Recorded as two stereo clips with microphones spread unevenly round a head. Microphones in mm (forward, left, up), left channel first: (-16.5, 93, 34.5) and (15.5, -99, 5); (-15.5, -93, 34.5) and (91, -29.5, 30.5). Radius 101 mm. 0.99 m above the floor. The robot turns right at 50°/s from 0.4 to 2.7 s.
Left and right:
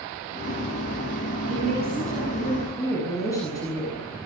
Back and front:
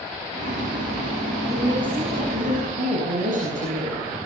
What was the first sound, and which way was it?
A woman speaking, 35° right.